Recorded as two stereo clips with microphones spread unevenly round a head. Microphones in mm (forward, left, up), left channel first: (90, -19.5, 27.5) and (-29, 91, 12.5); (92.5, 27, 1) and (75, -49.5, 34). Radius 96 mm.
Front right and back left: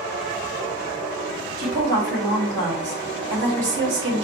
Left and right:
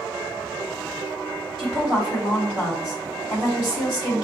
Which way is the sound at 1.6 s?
155° left.